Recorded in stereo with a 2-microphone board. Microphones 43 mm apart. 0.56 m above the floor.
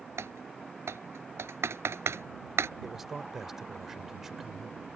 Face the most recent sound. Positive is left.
turn(degrees=-10)  # may be behind; listen again after turning